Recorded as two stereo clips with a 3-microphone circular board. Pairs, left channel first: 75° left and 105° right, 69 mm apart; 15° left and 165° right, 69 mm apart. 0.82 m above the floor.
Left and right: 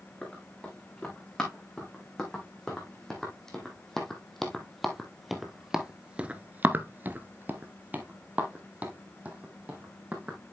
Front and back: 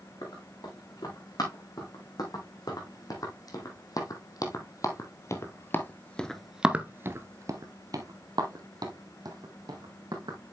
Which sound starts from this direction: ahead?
Running footsteps, at 0.2 s.